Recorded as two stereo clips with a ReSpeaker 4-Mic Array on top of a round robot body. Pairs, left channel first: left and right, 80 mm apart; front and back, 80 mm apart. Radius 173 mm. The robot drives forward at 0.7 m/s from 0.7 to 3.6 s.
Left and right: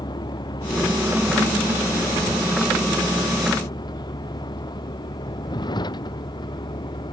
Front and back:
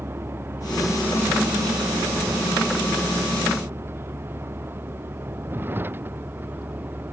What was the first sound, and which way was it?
A vehicle, 120° left.